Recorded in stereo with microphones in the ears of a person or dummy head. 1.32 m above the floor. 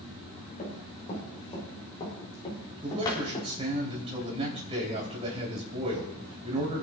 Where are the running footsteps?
30° left (ahead or behind), 6 m; by 3.5 s 25° left (ahead or behind), 4 m.